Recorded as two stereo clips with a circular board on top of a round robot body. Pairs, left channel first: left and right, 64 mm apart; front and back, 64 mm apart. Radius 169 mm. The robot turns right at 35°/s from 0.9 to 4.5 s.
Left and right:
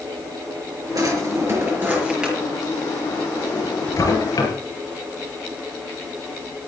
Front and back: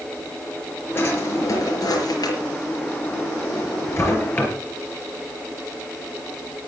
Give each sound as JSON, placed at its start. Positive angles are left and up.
{"t": 0.9, "sound": "a drawer", "azimuth_deg": -55, "distance_m": 5.0}